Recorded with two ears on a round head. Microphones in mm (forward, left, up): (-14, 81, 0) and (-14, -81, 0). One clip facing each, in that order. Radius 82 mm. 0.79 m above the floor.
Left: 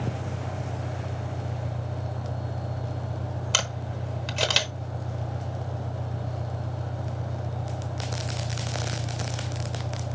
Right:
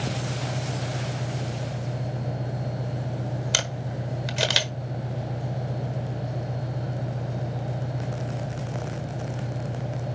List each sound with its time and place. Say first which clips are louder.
0.0 s an engine running: right 2 dB; 5° left (ahead or behind), 4.5 m
3.5 s a camera shutter: right 2 dB; 10° right (ahead or behind), 1.1 m